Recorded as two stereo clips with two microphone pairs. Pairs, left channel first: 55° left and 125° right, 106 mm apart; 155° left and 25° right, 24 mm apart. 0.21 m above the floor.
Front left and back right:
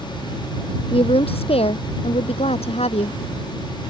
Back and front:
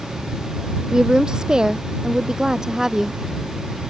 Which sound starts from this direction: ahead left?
A woman speaking, at 0.9 s.